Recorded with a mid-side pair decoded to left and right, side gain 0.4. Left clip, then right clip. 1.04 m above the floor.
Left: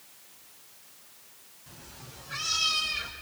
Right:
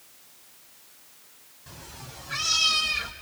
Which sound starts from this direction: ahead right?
A cat meowing, at 1.7 s.